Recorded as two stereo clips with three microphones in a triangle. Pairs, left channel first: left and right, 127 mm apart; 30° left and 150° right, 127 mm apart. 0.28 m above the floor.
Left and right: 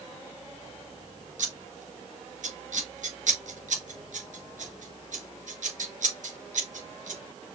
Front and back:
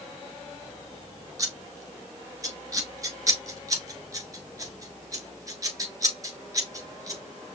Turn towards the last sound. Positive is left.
turn(degrees=-85)